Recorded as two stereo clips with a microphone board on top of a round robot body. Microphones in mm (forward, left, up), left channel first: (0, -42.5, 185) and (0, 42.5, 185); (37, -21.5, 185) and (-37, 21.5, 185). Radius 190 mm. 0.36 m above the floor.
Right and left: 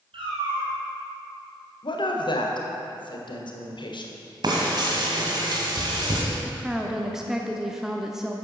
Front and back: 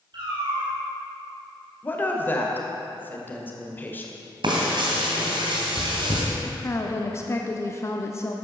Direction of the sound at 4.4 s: 125° left.